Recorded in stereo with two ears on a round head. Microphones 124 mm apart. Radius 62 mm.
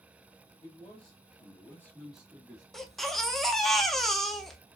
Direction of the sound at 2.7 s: Centre (ahead or behind).